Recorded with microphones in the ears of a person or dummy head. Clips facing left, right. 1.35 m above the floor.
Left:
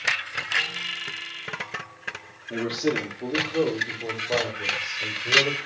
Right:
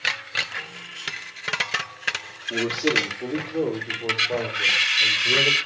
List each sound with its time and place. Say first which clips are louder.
2.5 s a man speaking: right 1 dB; 5° right (ahead or behind), 3.5 m